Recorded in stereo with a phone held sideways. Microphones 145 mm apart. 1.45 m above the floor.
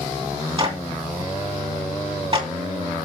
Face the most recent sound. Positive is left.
turn(degrees=-35)  # may be behind; listen again after turning